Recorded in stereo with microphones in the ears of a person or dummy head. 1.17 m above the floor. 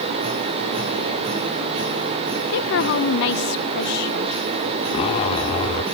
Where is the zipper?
35° left (ahead or behind).